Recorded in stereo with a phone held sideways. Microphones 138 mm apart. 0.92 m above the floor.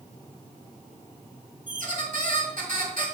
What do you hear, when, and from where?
1.7 s a squeak: 70° right (ahead or behind), 1.9 m